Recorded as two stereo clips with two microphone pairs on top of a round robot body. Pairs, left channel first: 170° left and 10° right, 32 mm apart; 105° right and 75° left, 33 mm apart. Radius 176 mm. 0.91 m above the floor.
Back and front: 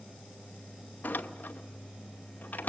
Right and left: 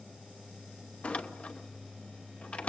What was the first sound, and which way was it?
A door slam, 155° right.